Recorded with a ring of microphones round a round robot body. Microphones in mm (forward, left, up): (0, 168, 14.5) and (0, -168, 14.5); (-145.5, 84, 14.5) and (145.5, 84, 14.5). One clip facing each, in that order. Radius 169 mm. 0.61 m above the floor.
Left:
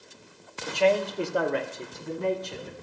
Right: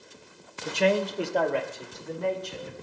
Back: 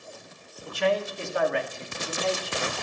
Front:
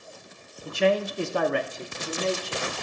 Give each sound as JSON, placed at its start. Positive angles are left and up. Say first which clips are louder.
{"t": 0.7, "sound": "a man speaking", "louder": "left 1 dB, front 3 dB", "azimuth_deg": -55, "distance_m": 1.0}